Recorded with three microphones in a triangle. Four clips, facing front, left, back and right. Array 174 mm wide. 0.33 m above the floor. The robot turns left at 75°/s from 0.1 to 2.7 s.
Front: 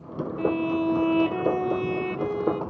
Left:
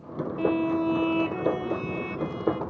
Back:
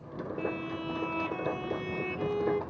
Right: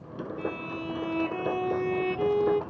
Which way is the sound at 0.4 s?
65° left.